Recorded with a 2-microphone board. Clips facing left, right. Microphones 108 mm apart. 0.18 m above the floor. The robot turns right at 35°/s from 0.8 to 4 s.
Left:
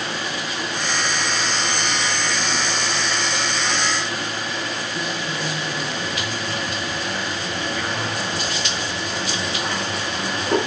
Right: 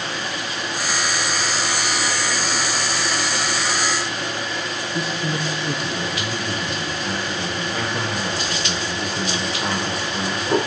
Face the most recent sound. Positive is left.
turn(degrees=-35)  # may be behind; listen again after turning